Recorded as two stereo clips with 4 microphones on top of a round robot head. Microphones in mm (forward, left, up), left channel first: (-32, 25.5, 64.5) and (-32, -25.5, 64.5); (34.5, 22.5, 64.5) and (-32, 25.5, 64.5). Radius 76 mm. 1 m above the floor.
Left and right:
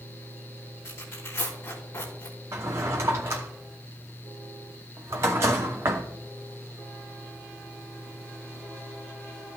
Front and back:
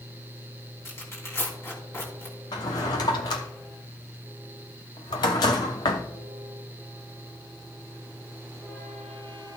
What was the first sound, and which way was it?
Tearing paper, 45° left.